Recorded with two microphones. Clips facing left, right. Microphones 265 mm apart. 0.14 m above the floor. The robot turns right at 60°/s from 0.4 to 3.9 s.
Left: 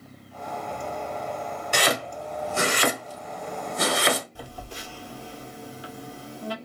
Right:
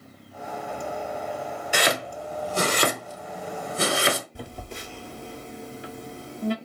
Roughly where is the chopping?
Centre.